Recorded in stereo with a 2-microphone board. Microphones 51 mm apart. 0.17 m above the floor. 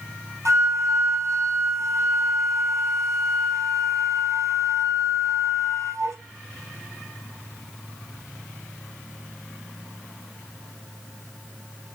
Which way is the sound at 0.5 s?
75° right (ahead or behind).